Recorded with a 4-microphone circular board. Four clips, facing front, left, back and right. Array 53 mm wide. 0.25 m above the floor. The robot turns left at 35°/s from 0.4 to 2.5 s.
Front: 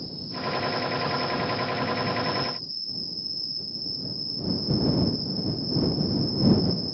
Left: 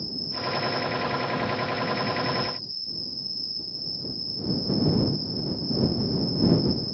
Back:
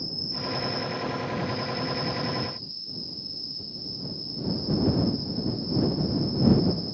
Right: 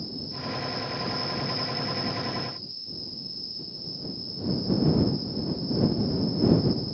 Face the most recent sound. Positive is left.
turn(degrees=-125)